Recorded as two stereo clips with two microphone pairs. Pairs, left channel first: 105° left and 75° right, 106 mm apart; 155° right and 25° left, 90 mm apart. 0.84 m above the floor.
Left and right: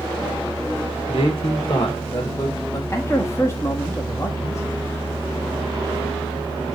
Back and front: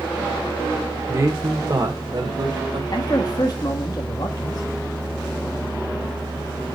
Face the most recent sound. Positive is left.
turn(degrees=170)